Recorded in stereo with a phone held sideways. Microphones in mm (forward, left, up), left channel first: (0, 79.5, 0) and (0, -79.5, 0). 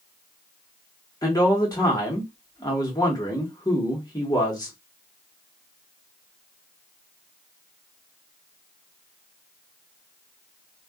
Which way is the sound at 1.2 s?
25° left (ahead or behind).